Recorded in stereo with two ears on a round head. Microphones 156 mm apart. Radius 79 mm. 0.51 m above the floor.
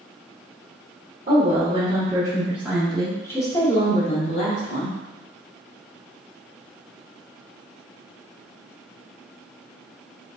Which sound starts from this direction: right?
A woman speaking, at 1.3 s.